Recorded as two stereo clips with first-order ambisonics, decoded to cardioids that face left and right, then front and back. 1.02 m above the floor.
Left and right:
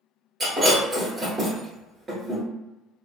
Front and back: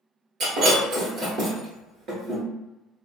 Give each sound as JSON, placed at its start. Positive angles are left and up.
{"t": 0.4, "sound": "breaking glass", "azimuth_deg": -160, "distance_m": 1.3}